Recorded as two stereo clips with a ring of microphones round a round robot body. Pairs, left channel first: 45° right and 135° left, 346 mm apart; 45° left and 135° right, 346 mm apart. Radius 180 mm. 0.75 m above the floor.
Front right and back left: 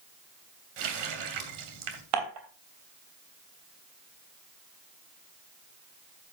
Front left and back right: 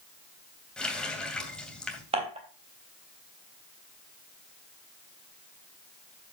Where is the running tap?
130° left, 2.5 m.